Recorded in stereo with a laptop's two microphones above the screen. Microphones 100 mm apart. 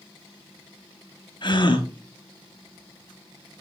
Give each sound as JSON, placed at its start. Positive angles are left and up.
{"t": 1.4, "sound": "a gasp", "side_deg": 50, "distance_m": 1.0}